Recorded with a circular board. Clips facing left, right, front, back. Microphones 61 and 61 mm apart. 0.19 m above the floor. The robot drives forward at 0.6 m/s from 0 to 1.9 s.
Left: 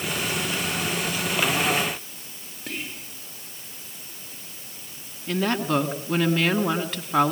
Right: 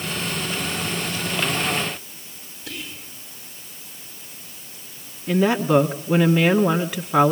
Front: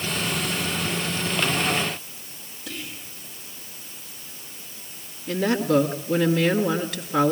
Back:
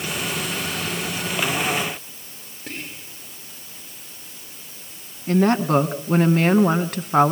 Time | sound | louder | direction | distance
2.7 | whispering | left 1 dB, back 2 dB | 135° left | 5 m
5.3 | a woman speaking | right 6 dB, back 4 dB | 170° right | 1.5 m